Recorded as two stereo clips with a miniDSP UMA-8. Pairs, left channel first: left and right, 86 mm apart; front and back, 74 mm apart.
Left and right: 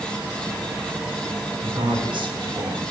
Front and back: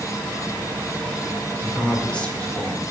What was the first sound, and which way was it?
A man speaking, 75° right.